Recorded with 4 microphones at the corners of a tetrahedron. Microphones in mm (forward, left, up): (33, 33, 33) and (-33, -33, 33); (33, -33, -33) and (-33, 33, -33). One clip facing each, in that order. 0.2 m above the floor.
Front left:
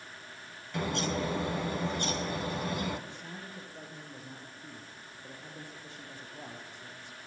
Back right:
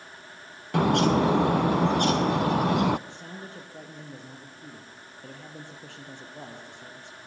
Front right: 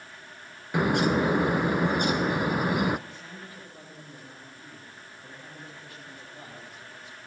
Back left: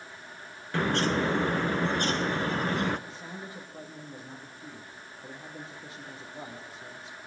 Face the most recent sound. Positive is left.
turn(degrees=-155)